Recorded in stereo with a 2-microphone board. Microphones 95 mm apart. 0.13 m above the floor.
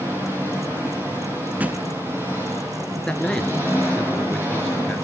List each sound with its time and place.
0.0 s an engine running: 25° right (ahead or behind), 7.5 m
1.6 s a thud: 15° right (ahead or behind), 0.7 m
3.1 s a man speaking: 10° left (ahead or behind), 2.5 m